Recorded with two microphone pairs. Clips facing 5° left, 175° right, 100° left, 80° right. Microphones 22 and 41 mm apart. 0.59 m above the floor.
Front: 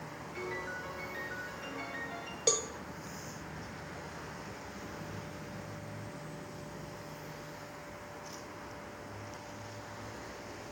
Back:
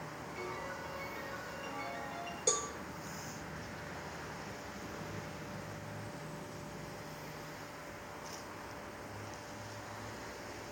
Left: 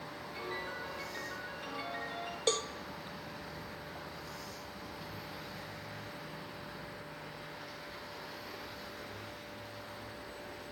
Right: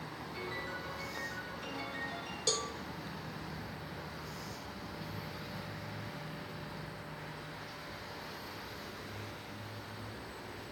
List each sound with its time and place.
0.3 s a piano: 25° left, 8.5 m
2.5 s a cowbell: 55° left, 1.2 m